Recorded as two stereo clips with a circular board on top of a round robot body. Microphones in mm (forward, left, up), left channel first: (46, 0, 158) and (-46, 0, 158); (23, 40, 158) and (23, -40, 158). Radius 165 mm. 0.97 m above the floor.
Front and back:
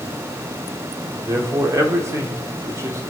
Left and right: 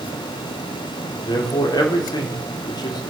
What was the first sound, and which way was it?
A man speaking, 120° left.